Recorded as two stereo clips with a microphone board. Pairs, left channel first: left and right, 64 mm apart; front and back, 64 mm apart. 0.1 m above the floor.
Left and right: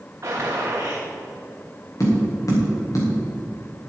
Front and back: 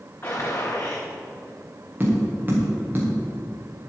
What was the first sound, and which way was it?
A gunshot, 50° right.